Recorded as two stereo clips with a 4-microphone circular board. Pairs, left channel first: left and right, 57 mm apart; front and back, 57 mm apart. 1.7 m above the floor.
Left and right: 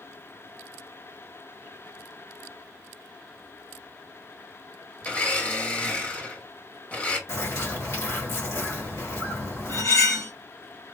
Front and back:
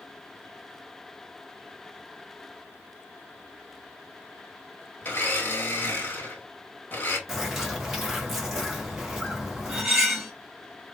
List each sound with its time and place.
5.0 s a blender: 40° left, 1.5 m
7.3 s a bird: 100° left, 1.9 m
9.7 s cutlery clinking: 105° left, 1.7 m